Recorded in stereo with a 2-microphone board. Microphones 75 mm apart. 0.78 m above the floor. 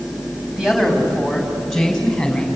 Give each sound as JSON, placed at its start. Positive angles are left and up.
{"t": 0.6, "sound": "a man speaking", "side_deg": -10, "distance_m": 5.0}